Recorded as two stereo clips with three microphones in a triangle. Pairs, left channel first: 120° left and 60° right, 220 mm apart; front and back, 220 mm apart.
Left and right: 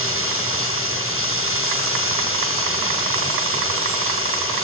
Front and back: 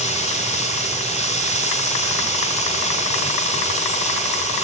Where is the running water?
60° right, 7.5 m.